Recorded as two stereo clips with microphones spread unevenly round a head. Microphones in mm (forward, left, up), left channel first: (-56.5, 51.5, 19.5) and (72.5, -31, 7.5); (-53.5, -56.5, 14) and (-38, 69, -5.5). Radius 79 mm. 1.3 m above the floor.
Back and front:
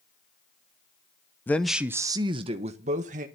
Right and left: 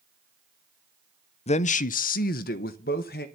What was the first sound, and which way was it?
A man speaking, 135° right.